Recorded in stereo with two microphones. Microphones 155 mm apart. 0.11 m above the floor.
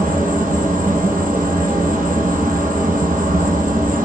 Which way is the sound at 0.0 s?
65° right (ahead or behind).